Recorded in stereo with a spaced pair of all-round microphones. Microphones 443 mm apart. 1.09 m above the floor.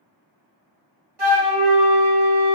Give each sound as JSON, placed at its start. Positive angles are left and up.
{"t": 1.2, "sound": "a flute", "side_deg": -60, "distance_m": 1.2}